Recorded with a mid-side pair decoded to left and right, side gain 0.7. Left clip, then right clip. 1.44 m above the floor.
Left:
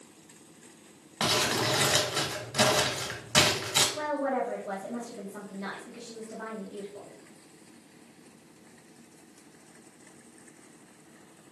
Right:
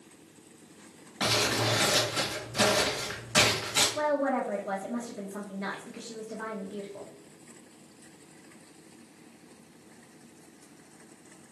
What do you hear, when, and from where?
1.2 s crumpling: 30° left, 1.3 m
4.0 s a woman speaking: 15° right, 0.7 m